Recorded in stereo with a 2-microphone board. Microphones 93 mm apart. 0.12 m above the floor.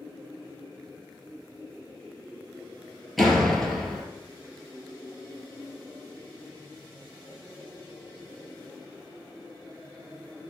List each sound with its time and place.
3.2 s a door slam: centre (ahead or behind), 2 m